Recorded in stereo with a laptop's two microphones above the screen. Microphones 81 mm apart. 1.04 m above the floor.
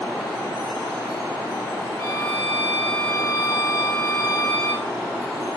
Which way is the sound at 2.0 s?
50° left (ahead or behind).